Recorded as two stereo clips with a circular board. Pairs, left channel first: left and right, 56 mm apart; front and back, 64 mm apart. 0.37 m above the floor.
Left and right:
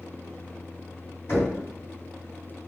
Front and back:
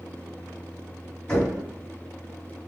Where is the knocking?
70° left, 1.9 m.